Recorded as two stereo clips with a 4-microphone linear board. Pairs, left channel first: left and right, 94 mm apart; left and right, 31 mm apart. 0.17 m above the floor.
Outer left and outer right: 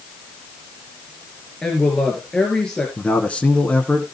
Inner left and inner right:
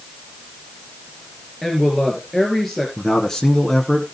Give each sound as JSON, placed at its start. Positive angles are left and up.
{"t": 1.6, "sound": "a woman speaking", "side_deg": 10, "distance_m": 3.5}
{"t": 3.0, "sound": "a man speaking", "side_deg": 10, "distance_m": 1.7}